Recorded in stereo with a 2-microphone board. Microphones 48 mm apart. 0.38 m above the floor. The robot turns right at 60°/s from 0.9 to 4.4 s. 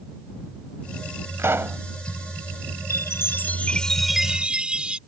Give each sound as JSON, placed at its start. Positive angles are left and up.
{"t": 1.4, "sound": "a pop", "side_deg": -55}
{"t": 2.9, "sound": "a chime", "azimuth_deg": 110}